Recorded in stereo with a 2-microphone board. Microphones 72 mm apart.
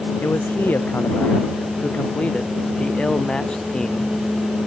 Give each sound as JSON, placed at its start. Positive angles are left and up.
{"t": 0.2, "sound": "a man speaking", "side_deg": 25}